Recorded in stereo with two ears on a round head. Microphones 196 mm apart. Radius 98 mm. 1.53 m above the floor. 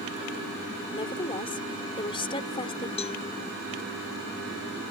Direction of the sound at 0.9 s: 25° left (ahead or behind).